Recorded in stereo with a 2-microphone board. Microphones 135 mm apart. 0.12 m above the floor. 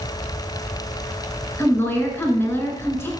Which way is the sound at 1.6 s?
15° left (ahead or behind).